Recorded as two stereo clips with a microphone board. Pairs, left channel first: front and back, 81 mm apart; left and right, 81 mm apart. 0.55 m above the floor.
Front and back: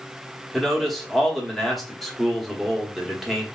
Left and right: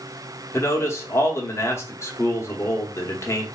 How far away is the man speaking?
About 0.9 m.